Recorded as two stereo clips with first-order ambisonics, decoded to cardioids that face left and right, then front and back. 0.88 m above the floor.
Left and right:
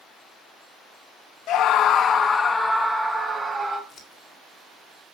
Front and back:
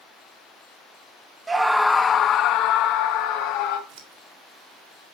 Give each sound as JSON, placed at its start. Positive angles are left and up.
{"t": 1.5, "sound": "a scream", "azimuth_deg": 110, "distance_m": 0.6}
{"t": 3.9, "sound": "scissors", "azimuth_deg": 155, "distance_m": 2.0}